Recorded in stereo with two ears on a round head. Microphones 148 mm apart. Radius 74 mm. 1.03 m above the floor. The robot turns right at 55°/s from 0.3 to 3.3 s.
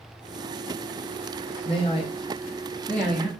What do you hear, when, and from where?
1.6 s a man speaking: 35° left (ahead or behind), 0.6 m; by 3.3 s centre (ahead or behind), 0.6 m